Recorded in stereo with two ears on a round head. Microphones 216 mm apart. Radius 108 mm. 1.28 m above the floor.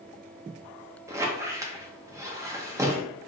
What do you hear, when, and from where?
1.1 s a squeak: 15° right (ahead or behind), 0.7 m